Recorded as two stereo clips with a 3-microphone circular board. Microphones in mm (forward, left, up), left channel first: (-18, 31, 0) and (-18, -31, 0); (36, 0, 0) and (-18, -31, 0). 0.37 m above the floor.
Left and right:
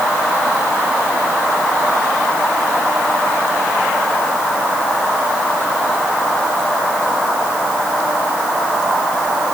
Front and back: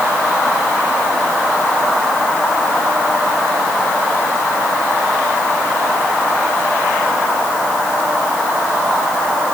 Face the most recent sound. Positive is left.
No sound to turn to.